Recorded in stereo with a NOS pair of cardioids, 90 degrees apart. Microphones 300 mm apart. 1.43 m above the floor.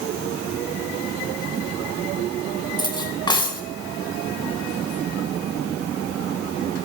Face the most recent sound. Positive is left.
turn(degrees=15)